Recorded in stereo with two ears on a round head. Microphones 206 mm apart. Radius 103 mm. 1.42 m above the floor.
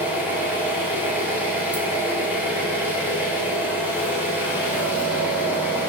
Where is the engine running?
10° right (ahead or behind), 0.9 m.